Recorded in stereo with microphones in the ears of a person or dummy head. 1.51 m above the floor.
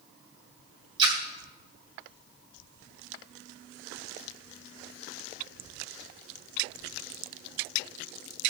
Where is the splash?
20° right (ahead or behind), 3 m.